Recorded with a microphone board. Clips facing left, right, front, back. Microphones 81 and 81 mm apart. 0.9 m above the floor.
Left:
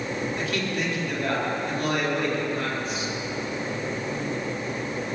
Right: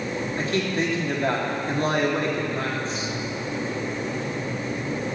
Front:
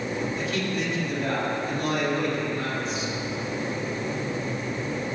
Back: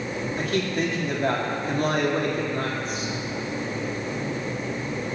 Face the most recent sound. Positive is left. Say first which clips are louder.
# right 3 dB, back 3 dB
turn(degrees=-145)